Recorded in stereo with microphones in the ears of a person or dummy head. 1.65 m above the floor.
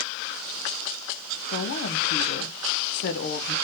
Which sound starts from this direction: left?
A woman speaking, at 1.5 s.